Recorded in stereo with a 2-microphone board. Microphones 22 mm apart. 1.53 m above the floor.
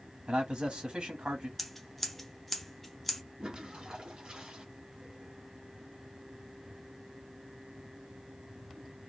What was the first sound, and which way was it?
A man speaking, 60° right (ahead or behind).